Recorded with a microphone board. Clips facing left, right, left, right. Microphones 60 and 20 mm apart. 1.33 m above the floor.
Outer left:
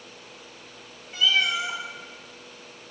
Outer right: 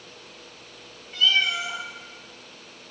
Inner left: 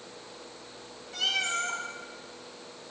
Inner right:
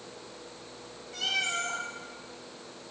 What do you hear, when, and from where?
1.1 s a cat meowing: 10° left (ahead or behind), 1.0 m